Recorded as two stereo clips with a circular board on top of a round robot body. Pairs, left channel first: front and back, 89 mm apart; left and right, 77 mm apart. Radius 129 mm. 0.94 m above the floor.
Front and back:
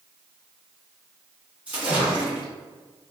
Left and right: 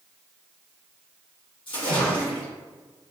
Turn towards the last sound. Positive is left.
turn(degrees=105)